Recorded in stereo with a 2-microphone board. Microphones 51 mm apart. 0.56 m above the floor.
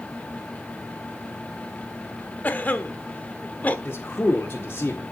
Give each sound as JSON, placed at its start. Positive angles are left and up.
{"t": 2.4, "sound": "a cough", "side_deg": 35, "distance_m": 1.2}
{"t": 3.9, "sound": "a man speaking", "side_deg": 45, "distance_m": 1.8}